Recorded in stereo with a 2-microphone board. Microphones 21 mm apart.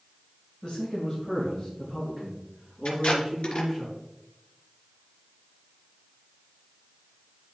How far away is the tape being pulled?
About 3 m.